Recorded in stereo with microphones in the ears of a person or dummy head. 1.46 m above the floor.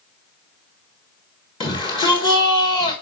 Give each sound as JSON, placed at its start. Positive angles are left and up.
{"t": 1.6, "sound": "a shout", "side_deg": 25, "distance_m": 1.4}